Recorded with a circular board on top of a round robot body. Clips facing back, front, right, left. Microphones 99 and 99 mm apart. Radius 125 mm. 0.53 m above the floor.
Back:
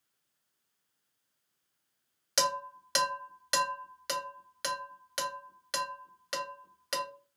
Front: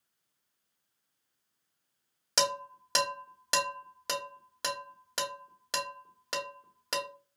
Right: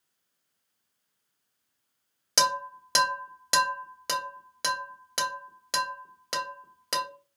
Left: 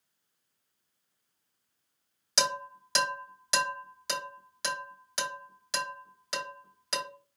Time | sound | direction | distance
2.4 | dishes clattering | 55° right | 1.7 m